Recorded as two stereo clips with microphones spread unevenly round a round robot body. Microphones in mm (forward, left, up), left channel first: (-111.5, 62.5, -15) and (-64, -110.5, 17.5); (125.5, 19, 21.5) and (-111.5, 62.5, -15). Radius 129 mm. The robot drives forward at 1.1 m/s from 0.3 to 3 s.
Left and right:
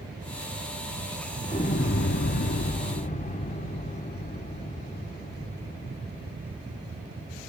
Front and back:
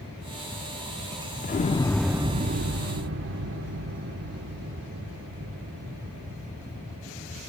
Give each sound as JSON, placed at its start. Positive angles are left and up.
{"t": 1.4, "sound": "an explosion", "azimuth_deg": 45, "distance_m": 1.1}